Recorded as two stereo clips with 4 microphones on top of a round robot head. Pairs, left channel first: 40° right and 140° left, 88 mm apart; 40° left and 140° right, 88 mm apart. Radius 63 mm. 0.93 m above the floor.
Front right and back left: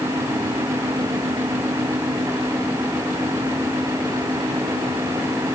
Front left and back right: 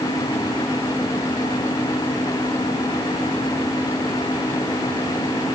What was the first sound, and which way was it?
Only background noise.